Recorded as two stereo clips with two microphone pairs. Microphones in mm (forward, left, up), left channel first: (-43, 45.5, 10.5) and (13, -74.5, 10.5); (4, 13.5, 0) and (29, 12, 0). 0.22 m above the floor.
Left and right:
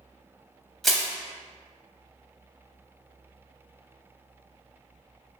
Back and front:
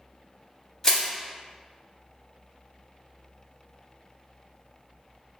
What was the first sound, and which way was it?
Crushing, 160° right.